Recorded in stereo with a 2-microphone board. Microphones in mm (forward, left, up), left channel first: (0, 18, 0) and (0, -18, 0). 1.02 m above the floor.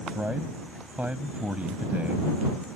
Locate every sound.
0.1 s a man speaking: 50° right (ahead or behind)